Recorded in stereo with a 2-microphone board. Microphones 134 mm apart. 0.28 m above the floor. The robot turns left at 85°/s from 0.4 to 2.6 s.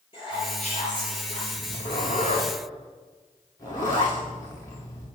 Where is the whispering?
140° left, 6 m; by 1.4 s 55° left, 6 m.